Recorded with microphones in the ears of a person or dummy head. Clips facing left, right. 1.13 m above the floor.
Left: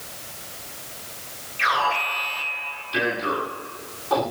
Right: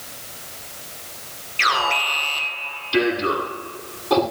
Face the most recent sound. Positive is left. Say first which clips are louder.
# right 1 dB
turn(degrees=-40)  # may be behind; listen again after turning